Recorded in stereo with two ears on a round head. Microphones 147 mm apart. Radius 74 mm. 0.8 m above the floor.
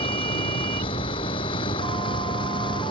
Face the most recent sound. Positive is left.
turn(degrees=30)  # may be behind; listen again after turning